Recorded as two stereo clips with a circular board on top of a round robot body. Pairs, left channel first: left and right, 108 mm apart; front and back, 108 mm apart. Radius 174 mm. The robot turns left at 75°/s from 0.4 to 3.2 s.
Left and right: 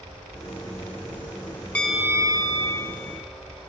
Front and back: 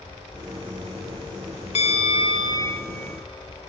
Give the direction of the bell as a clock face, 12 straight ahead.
12 o'clock.